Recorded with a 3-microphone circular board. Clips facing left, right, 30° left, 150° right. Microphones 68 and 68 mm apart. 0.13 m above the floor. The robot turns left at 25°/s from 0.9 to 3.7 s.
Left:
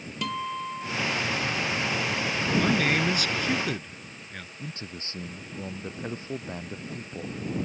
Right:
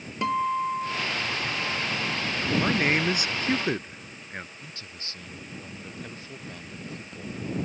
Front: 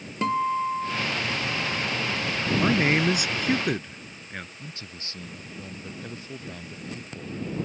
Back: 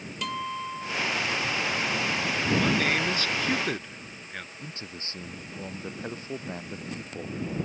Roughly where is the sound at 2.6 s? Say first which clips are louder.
Even, front 5 dB; ahead.